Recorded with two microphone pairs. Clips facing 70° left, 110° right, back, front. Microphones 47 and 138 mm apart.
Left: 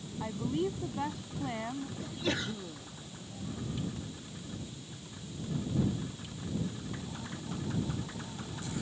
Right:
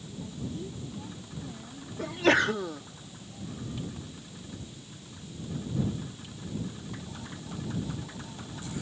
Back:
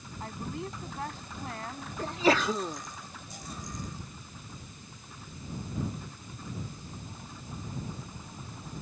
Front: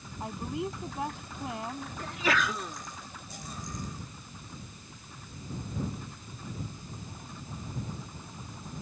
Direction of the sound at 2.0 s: 120° right.